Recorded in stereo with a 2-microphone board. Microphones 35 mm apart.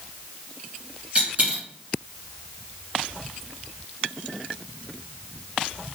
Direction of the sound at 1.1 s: 35° right (ahead or behind).